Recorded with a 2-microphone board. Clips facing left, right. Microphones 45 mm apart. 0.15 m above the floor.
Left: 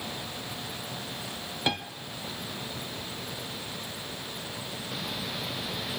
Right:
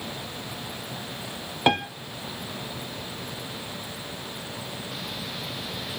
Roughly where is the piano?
Right.